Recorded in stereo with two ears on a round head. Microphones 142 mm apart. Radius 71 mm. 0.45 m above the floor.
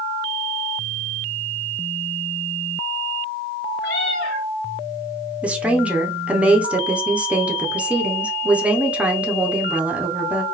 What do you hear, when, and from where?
3.8 s a cat meowing: 70° left (ahead or behind), 1.8 m
5.4 s a woman speaking: 10° right (ahead or behind), 0.8 m